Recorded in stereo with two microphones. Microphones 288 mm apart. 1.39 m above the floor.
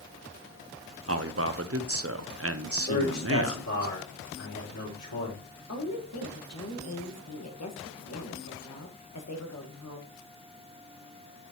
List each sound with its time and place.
1.1 s a man speaking: 50° right (ahead or behind), 0.7 m
2.9 s a man speaking: 85° left, 5 m
5.7 s a woman speaking: 60° left (ahead or behind), 1.4 m